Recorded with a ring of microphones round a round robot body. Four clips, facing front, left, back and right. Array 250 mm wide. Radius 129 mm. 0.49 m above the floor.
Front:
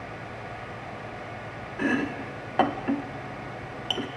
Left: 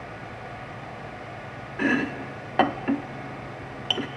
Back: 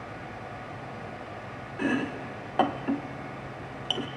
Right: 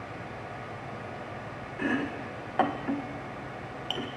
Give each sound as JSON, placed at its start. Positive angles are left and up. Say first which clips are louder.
{"t": 1.8, "sound": "chopping", "louder": "left 5 dB, front 2 dB", "azimuth_deg": 75, "distance_m": 1.0}